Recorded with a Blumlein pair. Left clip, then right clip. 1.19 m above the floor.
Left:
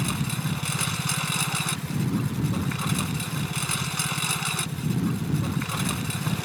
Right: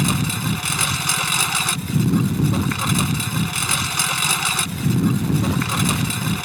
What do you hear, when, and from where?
0.0 s a lawn mower: 25° right